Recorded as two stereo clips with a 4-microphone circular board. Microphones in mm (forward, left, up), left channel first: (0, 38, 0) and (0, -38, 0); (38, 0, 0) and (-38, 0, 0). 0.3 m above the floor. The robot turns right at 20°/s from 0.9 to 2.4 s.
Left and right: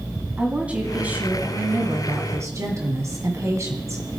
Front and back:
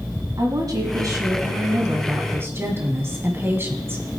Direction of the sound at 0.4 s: 160° right.